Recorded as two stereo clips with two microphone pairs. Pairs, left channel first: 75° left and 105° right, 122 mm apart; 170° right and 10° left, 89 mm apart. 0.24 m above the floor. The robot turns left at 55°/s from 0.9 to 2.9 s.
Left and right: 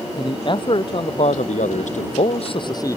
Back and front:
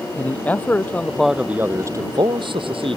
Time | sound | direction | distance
0.2 | a man speaking | 120° left | ?